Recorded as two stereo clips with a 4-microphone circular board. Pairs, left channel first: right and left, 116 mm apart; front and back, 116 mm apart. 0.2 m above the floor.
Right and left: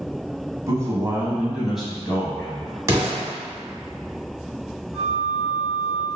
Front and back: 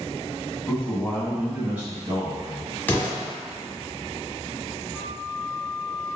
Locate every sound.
0.7 s a man speaking: 65° left, 1.2 m; by 2.8 s 150° right, 1.4 m
2.9 s an explosion: 60° left, 1.4 m
4.9 s a flute: 155° left, 1.6 m